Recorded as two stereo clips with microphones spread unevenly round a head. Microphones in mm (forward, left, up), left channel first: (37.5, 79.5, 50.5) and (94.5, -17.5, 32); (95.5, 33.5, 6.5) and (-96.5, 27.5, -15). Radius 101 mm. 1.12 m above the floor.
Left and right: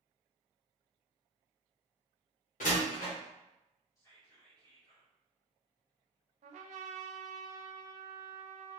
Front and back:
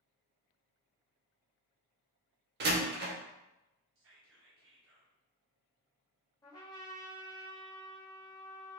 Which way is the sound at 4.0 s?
170° right.